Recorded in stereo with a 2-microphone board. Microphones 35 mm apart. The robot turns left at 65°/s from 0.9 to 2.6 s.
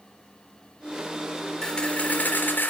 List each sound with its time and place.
1.6 s a camera shutter: 165° left, 3.5 m; by 2.7 s 100° left, 3.5 m